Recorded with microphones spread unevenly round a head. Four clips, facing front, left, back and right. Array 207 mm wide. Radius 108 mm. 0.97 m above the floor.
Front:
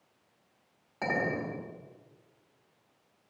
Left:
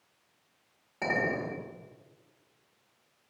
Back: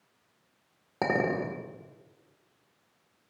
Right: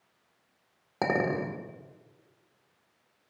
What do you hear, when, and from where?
1.0 s a clink: 140° right, 1.9 m